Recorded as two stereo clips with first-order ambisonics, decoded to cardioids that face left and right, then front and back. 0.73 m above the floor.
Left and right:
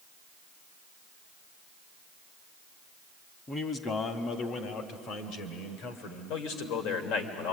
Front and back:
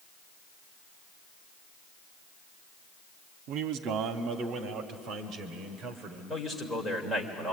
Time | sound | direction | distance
3.5 | a man speaking | 160° left | 1.3 m
6.3 | a man speaking | 80° left | 3 m